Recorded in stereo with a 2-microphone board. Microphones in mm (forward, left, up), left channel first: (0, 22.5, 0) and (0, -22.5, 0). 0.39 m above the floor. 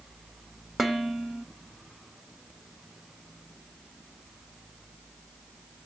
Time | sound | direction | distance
0.8 | dishes clattering | 5° right (ahead or behind) | 1.3 m